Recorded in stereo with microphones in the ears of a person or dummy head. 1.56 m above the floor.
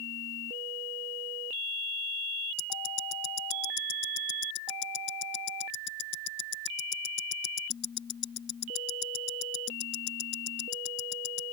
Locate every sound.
2.6 s ticking: 70° left (ahead or behind)